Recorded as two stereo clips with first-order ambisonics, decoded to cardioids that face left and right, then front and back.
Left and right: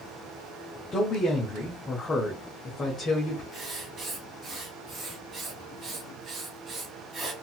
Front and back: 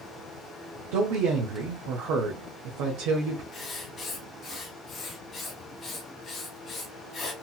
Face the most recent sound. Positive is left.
turn(degrees=-55)